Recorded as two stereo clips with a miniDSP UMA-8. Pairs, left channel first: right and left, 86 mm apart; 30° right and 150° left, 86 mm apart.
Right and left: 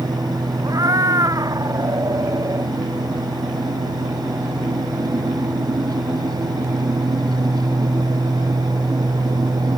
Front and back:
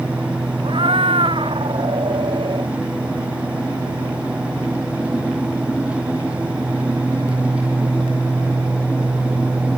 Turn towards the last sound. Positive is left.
turn(degrees=135)